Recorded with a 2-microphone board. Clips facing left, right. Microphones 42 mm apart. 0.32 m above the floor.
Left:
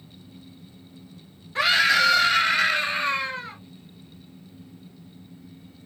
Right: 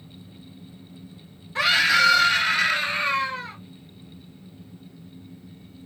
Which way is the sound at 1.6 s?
Centre (ahead or behind).